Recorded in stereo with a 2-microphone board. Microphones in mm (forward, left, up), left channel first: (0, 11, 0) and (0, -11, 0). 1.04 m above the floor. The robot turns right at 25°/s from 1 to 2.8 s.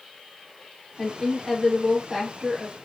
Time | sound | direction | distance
1.0 | a woman speaking | 165° left | 2 m